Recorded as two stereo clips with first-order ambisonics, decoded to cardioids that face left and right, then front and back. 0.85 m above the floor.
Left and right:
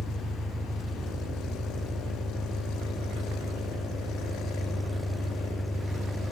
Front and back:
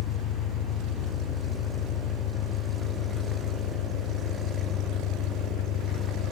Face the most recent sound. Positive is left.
turn(degrees=-10)